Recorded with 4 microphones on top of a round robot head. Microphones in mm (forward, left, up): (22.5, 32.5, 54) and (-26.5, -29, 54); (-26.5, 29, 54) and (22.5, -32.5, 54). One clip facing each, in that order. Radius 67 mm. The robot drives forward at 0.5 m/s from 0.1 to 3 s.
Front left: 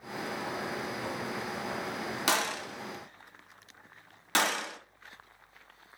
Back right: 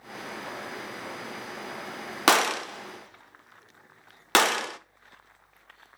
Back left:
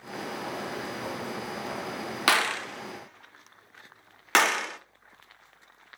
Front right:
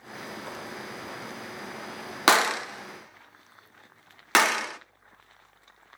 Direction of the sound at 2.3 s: 110° right.